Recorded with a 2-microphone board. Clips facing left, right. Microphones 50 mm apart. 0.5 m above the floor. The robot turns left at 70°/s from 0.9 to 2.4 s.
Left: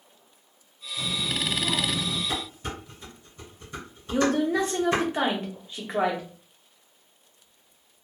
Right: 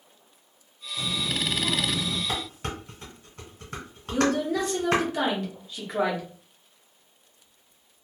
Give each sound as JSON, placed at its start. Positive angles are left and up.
{"t": 1.0, "sound": "a child speaking", "side_deg": -25, "distance_m": 0.6}
{"t": 2.3, "sound": "dishes clattering", "side_deg": -75, "distance_m": 1.4}
{"t": 4.1, "sound": "a woman speaking", "side_deg": 25, "distance_m": 0.7}